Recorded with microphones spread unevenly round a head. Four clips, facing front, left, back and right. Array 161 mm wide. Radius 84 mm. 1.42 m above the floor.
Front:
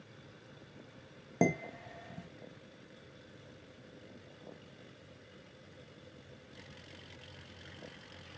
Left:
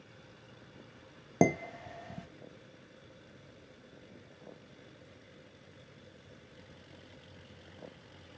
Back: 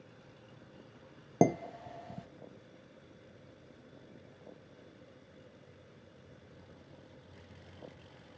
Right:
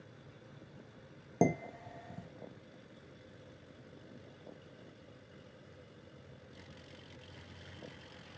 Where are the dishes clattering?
125° left, 0.8 m.